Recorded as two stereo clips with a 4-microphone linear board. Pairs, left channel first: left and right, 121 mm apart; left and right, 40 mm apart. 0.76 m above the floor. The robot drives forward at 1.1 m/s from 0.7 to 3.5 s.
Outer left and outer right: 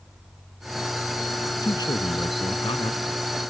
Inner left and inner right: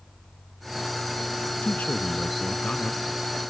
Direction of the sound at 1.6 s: 35° left (ahead or behind).